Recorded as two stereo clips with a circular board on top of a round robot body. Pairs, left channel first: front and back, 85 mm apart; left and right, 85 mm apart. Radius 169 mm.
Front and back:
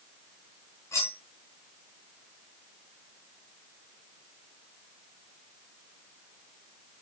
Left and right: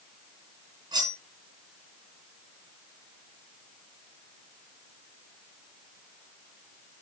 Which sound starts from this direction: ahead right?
Cutlery clinking, at 0.9 s.